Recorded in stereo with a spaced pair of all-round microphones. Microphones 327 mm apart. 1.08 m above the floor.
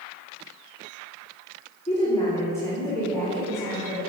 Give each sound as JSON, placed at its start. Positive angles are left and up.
{"t": 1.9, "sound": "a woman speaking", "side_deg": 20, "distance_m": 2.5}